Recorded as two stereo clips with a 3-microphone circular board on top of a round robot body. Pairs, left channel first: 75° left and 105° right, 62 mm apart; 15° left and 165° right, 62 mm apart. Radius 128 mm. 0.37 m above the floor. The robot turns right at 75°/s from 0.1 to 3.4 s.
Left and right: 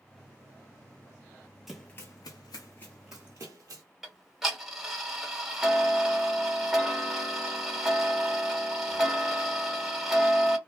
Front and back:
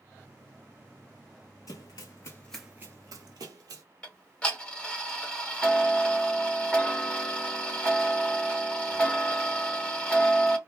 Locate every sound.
1.7 s running footsteps: 20° right, 0.7 m; by 3.8 s 140° right, 0.9 m
4.0 s ticking: 25° right, 1.5 m